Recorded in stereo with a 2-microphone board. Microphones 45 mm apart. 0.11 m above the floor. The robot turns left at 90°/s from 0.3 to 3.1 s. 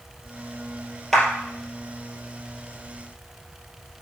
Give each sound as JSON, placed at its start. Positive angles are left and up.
{"t": 1.1, "sound": "a clap", "side_deg": 10, "distance_m": 2.5}